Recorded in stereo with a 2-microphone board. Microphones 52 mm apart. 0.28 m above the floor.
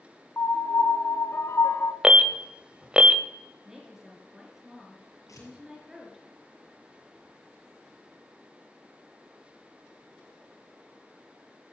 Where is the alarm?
20° right (ahead or behind), 0.7 m.